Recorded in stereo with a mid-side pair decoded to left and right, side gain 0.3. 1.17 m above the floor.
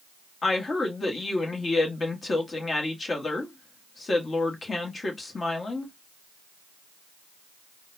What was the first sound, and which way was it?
A woman speaking, 50° left.